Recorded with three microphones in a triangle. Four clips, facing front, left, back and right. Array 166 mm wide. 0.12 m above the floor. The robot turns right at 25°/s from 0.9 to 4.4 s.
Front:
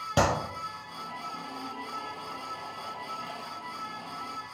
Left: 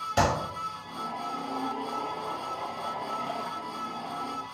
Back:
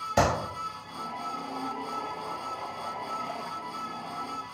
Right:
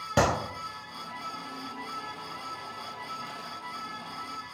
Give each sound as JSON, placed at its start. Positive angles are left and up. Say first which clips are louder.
{"t": 0.2, "sound": "a clap", "louder": "even, back 1 dB", "azimuth_deg": -45, "distance_m": 1.9}